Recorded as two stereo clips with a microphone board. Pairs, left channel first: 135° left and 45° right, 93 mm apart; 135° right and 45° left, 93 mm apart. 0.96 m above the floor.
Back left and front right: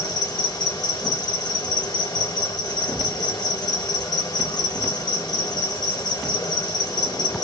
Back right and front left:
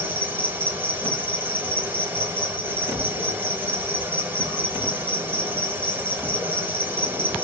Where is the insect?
105° left, 1.1 m.